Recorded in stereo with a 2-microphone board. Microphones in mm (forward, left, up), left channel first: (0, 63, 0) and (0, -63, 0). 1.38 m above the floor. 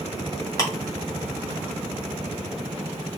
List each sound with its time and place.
0.6 s ticking: 25° left (ahead or behind), 1.4 m